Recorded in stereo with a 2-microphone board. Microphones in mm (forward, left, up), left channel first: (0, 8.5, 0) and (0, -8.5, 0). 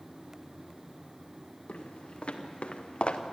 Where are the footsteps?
85° left, 3.5 m; by 3.2 s 70° left (ahead or behind), 2 m.